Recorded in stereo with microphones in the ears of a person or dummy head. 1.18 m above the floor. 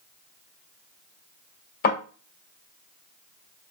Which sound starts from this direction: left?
A thud, at 1.8 s.